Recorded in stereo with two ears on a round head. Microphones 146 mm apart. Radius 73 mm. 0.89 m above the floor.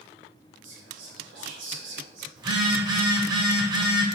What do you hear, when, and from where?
0.6 s whispering: 80° right, 3 m
2.4 s a phone buzzing: 25° right (ahead or behind), 1.5 m